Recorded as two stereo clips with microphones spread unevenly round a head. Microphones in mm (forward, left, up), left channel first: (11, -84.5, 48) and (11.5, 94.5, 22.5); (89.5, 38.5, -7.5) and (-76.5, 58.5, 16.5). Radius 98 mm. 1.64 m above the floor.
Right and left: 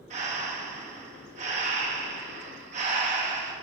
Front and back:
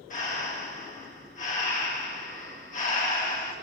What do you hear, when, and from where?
0.1 s breathing: 35° left, 2 m